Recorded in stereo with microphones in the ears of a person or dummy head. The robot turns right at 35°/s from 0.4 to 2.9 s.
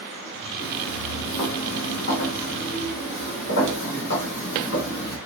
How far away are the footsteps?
About 5 m.